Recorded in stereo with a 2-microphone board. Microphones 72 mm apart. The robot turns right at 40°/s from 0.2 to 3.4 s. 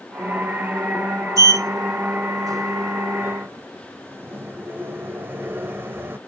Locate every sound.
1.4 s a sliding door: 50° right (ahead or behind), 0.7 m; by 6.2 s 30° right (ahead or behind), 0.7 m